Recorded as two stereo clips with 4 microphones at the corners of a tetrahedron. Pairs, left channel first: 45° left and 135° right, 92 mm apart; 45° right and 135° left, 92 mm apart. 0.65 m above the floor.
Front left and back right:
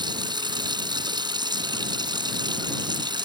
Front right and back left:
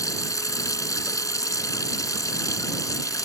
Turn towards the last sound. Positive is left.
turn(degrees=-95)